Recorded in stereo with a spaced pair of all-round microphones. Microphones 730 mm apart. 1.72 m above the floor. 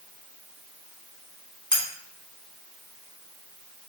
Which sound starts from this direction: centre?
Cutlery clinking, at 1.7 s.